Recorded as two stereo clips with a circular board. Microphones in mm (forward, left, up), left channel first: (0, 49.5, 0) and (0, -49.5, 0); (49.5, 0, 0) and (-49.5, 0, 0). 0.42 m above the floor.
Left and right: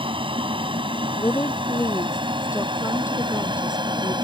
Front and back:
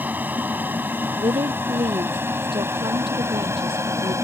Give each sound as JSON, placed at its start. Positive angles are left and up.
{"t": 0.0, "sound": "an aircraft", "azimuth_deg": -110}
{"t": 1.2, "sound": "a woman speaking", "azimuth_deg": 150}